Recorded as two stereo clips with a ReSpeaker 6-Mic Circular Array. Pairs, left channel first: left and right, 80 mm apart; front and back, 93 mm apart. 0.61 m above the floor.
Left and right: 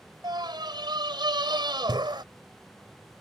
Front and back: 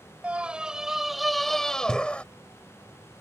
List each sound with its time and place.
0.2 s a scream: 105° right; by 2.2 s 75° right